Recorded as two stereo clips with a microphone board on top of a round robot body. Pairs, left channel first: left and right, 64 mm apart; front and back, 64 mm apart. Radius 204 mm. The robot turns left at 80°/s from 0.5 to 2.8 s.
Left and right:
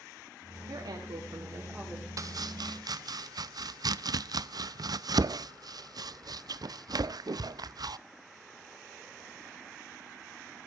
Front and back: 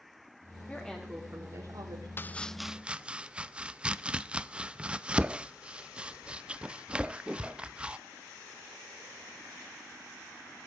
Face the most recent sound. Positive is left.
turn(degrees=-105)